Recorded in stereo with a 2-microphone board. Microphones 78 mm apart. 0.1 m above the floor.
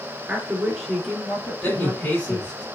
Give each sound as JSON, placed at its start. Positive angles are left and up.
{"t": 0.3, "sound": "a woman speaking", "side_deg": -20, "distance_m": 1.1}
{"t": 1.6, "sound": "a man speaking", "side_deg": 20, "distance_m": 2.0}